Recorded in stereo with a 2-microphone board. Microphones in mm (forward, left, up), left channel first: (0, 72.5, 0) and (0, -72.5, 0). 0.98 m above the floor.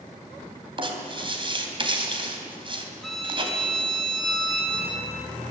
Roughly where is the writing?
Right.